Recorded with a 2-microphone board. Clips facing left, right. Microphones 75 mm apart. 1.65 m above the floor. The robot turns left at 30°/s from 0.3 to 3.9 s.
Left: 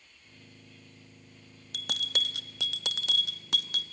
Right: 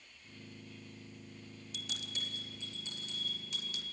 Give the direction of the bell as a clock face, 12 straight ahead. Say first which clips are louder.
Left 10 dB; 8 o'clock.